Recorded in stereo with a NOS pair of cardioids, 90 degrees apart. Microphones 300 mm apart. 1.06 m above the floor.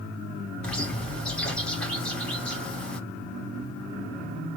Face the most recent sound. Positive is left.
turn(degrees=5)